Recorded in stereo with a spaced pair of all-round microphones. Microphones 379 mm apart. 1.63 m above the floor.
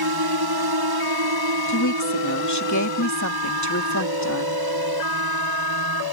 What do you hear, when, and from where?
0.0 s a drone: 70° right (ahead or behind); by 6.1 s 60° right (ahead or behind)
1.7 s a woman speaking: 45° left (ahead or behind)